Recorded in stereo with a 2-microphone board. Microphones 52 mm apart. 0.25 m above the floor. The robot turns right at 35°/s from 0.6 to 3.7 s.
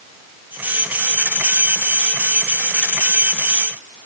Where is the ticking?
I don't hear ticking.